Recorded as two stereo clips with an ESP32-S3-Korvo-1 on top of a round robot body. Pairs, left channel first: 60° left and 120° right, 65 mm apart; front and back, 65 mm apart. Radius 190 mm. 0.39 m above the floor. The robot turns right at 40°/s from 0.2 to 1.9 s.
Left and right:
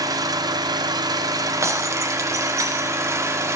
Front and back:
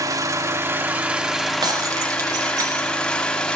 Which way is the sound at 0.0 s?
145° right.